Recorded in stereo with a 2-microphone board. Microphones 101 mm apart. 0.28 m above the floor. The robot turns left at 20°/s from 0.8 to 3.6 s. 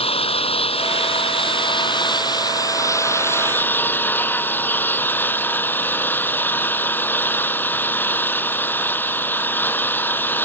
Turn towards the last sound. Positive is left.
turn(degrees=20)